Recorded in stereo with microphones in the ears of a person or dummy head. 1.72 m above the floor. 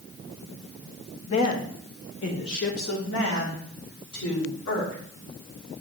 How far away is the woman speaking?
About 1.2 m.